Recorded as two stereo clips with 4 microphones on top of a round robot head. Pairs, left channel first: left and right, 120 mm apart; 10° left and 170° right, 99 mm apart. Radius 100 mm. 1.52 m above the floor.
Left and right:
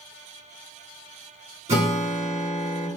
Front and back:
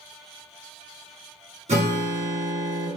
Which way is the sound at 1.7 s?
135° right.